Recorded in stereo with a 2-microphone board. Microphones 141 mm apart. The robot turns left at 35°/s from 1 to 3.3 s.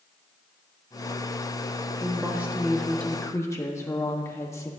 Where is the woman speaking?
155° right, 1.2 m; by 4.7 s 160° left, 1.2 m.